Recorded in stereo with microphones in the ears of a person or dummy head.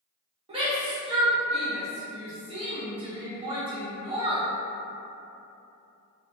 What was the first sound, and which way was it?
A shout, 30° right (ahead or behind).